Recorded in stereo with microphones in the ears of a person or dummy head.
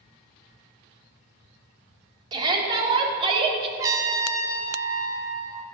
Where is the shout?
30° right (ahead or behind), 3.5 m; by 3.7 s 35° right (ahead or behind), 2.5 m.